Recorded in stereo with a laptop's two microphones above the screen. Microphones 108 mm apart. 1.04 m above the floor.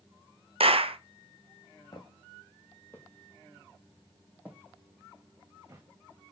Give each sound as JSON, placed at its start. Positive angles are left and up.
{"t": 0.6, "sound": "a clap", "side_deg": -60, "distance_m": 0.5}
{"t": 1.9, "sound": "footsteps", "side_deg": 45, "distance_m": 1.8}